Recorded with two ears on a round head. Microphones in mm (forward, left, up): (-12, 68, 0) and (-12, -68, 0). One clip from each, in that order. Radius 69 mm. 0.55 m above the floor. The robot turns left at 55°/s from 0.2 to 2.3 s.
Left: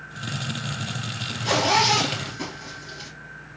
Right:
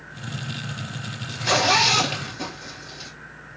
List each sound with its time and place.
1.3 s a zipper: 50° right (ahead or behind), 1.7 m; by 3.1 s 5° left (ahead or behind), 1.7 m